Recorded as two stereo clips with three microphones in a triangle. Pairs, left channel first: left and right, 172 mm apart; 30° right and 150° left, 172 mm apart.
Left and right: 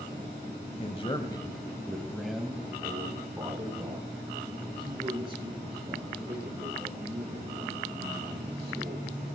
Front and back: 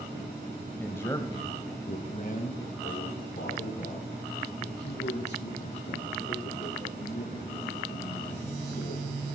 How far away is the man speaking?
About 1.2 m.